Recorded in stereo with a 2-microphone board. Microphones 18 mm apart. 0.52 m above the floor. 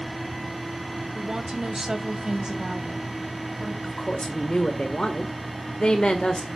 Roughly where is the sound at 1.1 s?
Right.